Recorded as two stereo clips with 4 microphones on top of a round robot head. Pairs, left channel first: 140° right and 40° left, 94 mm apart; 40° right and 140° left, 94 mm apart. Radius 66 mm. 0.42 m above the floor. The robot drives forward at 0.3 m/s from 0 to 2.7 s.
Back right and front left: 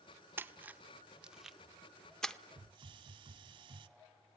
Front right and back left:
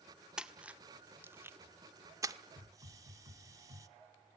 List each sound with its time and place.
0.4 s a splash: 70° left, 0.8 m; by 2.4 s 145° left, 1.0 m
2.6 s a hiss: 75° left, 0.8 m; by 3.9 s 80° left, 0.8 m